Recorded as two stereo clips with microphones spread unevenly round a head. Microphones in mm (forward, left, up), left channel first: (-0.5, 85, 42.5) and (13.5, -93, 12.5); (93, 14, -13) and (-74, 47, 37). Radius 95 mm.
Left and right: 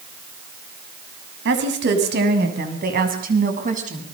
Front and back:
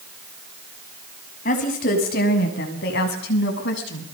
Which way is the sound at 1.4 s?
60° right.